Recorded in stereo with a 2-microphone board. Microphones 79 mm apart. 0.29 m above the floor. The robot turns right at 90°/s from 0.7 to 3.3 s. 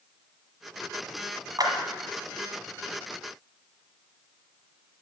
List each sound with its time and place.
1.6 s a clap: 55° right (ahead or behind), 1.5 m; by 1.7 s 50° right (ahead or behind), 1.5 m